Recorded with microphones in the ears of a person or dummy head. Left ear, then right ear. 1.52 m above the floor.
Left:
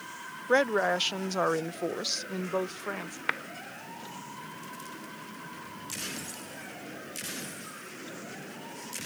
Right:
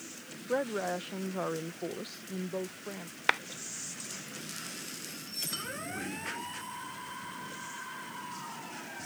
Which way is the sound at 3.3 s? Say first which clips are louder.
Right 3 dB; 10° right (ahead or behind).